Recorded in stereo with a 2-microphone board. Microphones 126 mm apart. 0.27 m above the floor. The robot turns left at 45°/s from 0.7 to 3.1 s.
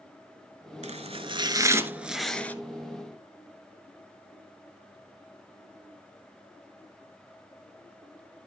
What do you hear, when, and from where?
0.8 s chopping: 65° right (ahead or behind), 0.8 m; by 2.5 s 15° left (ahead or behind), 0.8 m